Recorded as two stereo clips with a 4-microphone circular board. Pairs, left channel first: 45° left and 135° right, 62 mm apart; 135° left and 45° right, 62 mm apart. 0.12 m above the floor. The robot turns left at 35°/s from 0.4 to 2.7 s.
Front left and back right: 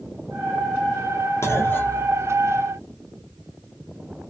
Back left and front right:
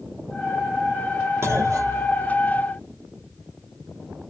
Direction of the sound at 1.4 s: Straight ahead.